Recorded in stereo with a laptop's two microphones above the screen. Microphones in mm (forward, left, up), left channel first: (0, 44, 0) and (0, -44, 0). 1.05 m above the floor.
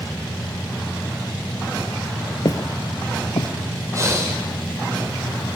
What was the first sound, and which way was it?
Footsteps, 45° left (ahead or behind).